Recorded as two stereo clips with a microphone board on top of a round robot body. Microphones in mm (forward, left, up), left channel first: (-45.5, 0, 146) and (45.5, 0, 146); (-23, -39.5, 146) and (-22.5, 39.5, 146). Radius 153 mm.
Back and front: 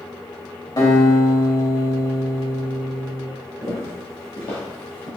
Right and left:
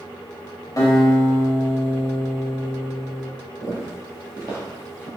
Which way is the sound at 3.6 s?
135° left.